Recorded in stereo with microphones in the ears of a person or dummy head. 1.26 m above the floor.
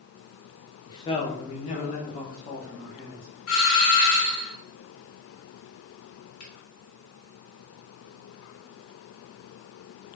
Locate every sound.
0.9 s a man speaking: 25° left (ahead or behind), 0.8 m; by 3.3 s 55° left (ahead or behind), 2 m
3.5 s a doorbell: 65° left (ahead or behind), 2 m
6.4 s a finger snap: 65° left (ahead or behind), 1.8 m